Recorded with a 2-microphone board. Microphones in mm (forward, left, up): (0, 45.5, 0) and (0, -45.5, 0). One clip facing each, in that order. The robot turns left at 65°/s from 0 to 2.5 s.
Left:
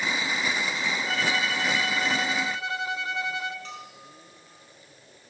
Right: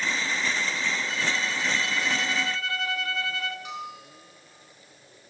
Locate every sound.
1.1 s a violin: 115° left, 1.9 m; by 3.5 s 20° left, 1.9 m
3.6 s a bell: 10° right (ahead or behind), 6 m